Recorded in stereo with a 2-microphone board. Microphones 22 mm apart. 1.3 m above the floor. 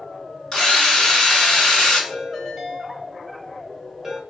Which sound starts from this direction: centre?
A ringtone, at 2.1 s.